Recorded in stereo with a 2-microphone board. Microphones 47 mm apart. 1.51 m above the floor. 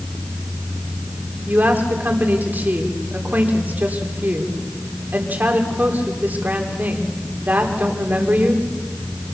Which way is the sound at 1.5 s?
40° right (ahead or behind).